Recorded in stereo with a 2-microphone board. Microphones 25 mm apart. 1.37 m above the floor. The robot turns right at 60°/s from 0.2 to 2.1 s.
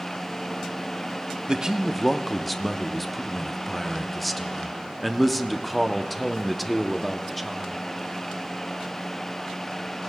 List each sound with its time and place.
1.5 s a man speaking: 30° right, 0.6 m; by 7.8 s 5° left, 0.6 m